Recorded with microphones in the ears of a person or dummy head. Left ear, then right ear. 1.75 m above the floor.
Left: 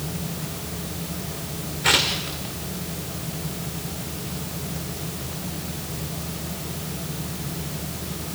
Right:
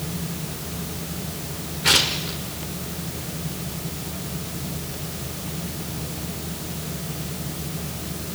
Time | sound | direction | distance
1.8 | tearing paper | 10° left (ahead or behind) | 1.7 m